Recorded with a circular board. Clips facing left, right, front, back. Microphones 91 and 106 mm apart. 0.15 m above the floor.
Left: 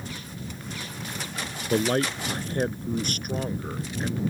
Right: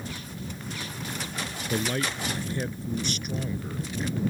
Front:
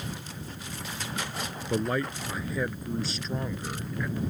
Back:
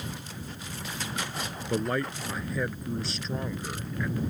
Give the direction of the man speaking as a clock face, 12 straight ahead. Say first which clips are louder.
Left 5 dB, even; 9 o'clock.